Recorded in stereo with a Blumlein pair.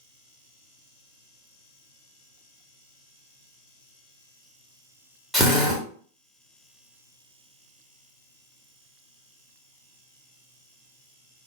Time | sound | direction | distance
5.3 | a drill | 5° right | 1.0 m